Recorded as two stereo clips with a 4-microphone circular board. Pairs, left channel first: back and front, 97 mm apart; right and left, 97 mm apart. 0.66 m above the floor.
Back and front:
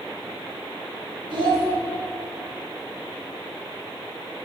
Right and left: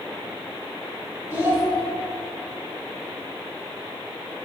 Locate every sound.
1.3 s a child speaking: 25° left, 2 m